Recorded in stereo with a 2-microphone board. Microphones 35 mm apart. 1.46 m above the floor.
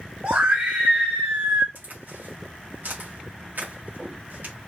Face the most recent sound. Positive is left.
turn(degrees=-65)  # may be behind; listen again after turning